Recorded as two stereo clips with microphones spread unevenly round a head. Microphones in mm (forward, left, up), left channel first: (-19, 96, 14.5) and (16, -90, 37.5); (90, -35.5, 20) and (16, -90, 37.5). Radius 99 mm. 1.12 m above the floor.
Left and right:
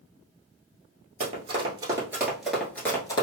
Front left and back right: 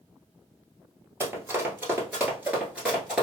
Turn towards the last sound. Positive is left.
turn(degrees=160)